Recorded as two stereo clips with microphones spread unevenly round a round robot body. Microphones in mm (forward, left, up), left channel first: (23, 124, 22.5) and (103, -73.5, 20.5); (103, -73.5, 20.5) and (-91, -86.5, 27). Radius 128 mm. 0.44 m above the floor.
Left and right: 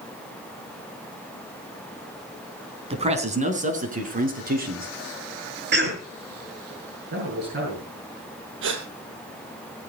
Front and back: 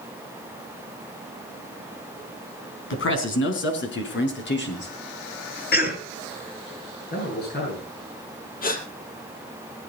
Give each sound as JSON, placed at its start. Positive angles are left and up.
{"t": 2.9, "sound": "a man speaking", "azimuth_deg": -5, "distance_m": 4.0}
{"t": 5.7, "sound": "a cough", "azimuth_deg": -30, "distance_m": 6.0}
{"t": 7.1, "sound": "a man speaking", "azimuth_deg": -30, "distance_m": 7.0}
{"t": 8.6, "sound": "a gasp", "azimuth_deg": -40, "distance_m": 2.5}